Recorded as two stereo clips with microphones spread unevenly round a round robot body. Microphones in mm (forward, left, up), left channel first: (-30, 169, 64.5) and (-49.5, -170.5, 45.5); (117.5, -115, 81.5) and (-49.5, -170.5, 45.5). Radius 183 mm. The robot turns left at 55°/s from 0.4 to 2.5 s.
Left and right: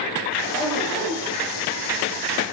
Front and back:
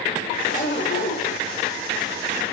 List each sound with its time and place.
0.4 s a zipper: 15° left, 1.0 m; by 1.4 s 40° right, 1.0 m